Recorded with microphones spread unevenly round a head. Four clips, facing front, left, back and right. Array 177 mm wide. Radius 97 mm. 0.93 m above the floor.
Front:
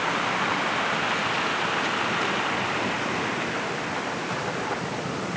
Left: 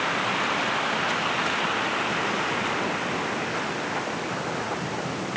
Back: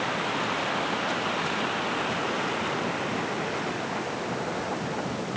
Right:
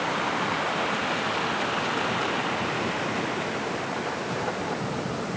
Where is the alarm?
No alarm in this recording.